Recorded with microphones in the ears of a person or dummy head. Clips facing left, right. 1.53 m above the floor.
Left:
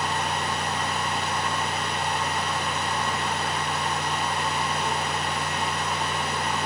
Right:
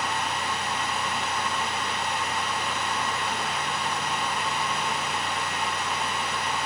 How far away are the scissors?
I don't hear scissors.